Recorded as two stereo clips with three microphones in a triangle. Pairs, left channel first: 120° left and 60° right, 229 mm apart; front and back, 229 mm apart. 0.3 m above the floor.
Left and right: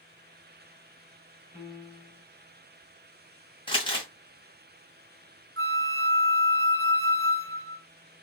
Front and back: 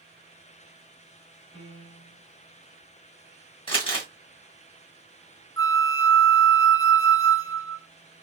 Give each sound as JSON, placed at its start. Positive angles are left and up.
{"t": 1.5, "sound": "a piano", "azimuth_deg": 20, "distance_m": 1.4}
{"t": 3.7, "sound": "crumpling", "azimuth_deg": 60, "distance_m": 2.0}
{"t": 5.6, "sound": "a flute", "azimuth_deg": -75, "distance_m": 0.7}